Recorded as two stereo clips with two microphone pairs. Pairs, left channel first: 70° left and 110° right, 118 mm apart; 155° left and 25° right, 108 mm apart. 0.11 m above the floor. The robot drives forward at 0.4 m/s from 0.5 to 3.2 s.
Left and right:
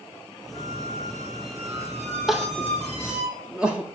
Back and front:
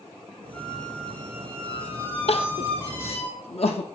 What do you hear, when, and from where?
0.5 s a squeak: 120° right, 2 m; by 3.3 s 140° right, 3 m
2.3 s crying: 165° left, 0.7 m; by 3.9 s 170° left, 1.0 m